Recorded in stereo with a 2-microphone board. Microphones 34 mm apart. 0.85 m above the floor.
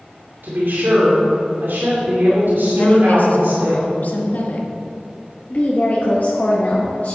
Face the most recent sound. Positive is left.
turn(degrees=50)  # may be behind; listen again after turning